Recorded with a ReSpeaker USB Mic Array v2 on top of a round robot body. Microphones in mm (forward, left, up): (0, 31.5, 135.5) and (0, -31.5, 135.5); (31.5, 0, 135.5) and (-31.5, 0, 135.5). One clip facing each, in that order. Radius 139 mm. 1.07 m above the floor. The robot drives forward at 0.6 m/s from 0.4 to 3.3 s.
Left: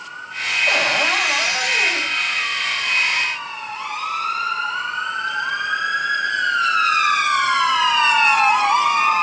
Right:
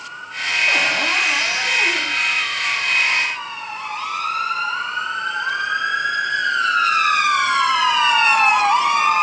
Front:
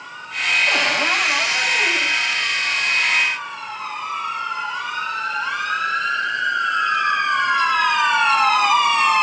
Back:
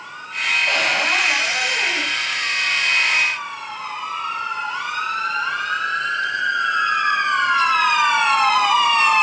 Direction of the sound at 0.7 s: 85° left.